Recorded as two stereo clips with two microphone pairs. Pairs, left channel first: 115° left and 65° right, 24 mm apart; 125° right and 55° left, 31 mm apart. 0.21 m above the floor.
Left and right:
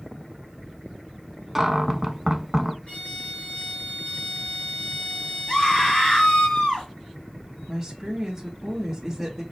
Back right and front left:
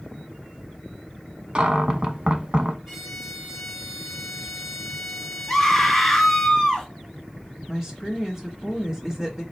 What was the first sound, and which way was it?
A cupboard door, 10° left.